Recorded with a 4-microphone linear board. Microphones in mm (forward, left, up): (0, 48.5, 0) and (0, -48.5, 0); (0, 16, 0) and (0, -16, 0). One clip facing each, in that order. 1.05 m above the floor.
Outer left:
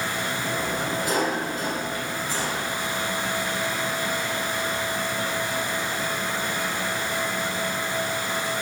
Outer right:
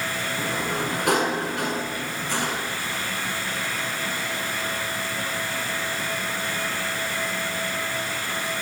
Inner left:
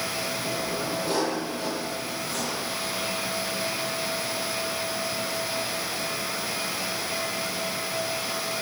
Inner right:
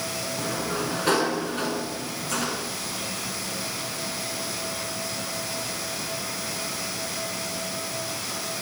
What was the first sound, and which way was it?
A sliding door, 75° right (ahead or behind).